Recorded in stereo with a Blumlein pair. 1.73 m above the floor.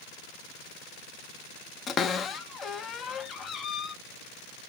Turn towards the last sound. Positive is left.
turn(degrees=25)